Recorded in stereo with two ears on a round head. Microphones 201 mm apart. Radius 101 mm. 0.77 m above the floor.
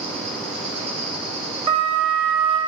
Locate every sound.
0.0 s an insect: 30° right (ahead or behind), 3 m
1.7 s a flute: 35° right (ahead or behind), 2 m